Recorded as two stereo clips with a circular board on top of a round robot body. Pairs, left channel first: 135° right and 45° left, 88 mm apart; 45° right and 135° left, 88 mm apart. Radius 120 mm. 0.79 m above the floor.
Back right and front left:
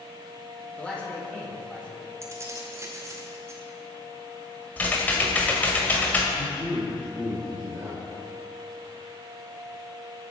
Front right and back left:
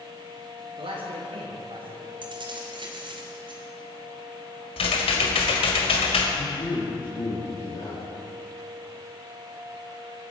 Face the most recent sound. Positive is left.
turn(degrees=-20)